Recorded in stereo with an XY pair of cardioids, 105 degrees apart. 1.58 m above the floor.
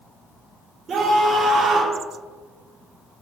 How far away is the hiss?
I don't hear a hiss.